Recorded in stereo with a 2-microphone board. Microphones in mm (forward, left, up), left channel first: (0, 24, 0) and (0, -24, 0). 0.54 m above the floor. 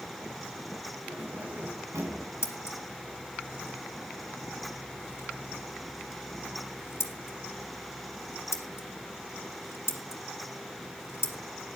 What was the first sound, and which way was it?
Keys jangling, 60° right (ahead or behind).